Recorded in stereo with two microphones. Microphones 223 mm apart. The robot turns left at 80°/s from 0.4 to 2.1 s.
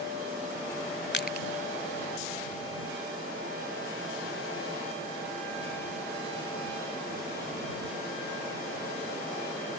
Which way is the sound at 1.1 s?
55° left (ahead or behind).